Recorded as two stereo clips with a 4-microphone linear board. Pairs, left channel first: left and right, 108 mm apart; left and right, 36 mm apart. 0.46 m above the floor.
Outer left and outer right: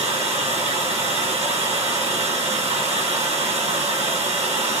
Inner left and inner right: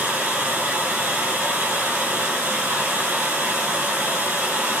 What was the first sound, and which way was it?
Running water, 80° right.